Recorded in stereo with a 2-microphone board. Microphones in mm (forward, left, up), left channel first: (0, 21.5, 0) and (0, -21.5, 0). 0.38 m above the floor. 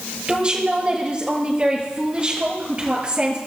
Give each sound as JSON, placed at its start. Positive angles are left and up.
{"t": 0.3, "sound": "a woman speaking", "side_deg": -25, "distance_m": 6.5}